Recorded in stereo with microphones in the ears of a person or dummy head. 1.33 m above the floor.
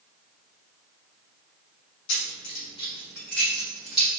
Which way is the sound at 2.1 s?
65° left (ahead or behind).